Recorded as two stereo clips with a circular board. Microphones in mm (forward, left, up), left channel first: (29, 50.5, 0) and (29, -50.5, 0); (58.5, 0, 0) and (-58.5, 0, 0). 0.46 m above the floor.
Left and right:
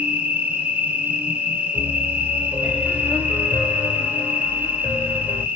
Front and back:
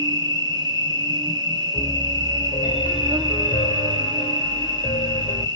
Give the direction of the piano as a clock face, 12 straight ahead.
11 o'clock.